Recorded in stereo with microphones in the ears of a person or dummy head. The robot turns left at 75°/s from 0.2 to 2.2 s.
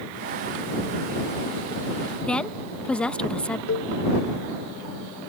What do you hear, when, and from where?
2.2 s a woman speaking: 5° left (ahead or behind)
3.7 s a cowbell: 70° left (ahead or behind)